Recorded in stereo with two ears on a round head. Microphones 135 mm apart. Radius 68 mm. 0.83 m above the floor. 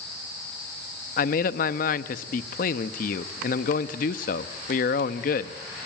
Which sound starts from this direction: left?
A man speaking, at 1.2 s.